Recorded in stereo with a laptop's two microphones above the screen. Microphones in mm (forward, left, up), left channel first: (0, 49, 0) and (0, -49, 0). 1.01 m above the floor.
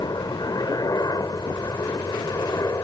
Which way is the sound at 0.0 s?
40° left (ahead or behind).